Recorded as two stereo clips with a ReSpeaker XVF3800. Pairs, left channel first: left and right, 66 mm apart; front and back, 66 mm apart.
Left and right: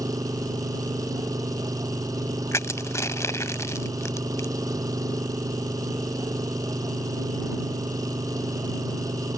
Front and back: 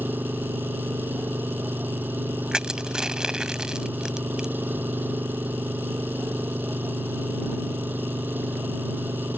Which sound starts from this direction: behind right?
An engine running, at 0.0 s.